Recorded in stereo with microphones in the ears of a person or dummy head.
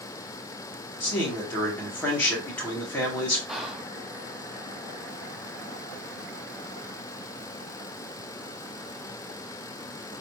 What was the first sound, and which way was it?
A man speaking, 5° left (ahead or behind).